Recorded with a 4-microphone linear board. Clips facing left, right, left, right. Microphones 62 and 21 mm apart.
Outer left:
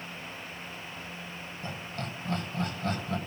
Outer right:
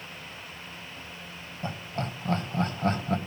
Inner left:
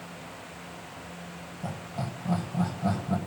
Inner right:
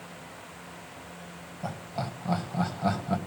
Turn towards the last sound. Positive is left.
turn(degrees=-40)  # may be behind; listen again after turning